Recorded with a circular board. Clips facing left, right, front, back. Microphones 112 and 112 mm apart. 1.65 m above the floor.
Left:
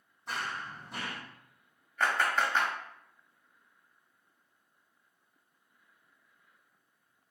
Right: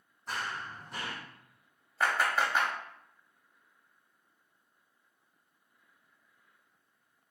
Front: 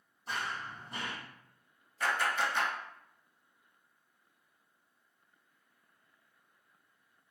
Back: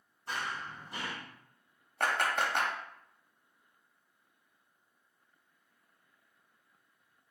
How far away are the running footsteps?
About 1.9 m.